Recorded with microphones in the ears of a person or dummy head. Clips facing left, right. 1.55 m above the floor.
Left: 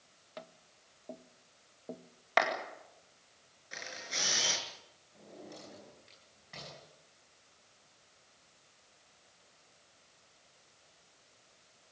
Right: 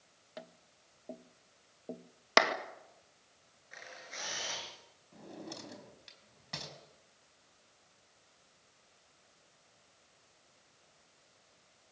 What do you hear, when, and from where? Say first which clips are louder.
0.4 s tapping: even; 5° right (ahead or behind), 0.8 m
2.4 s a clap: right 2 dB; 60° right (ahead or behind), 2 m
3.7 s a camera shutter: left 5 dB; 55° left (ahead or behind), 5 m
5.1 s a drawer: right 3 dB; 80° right, 5 m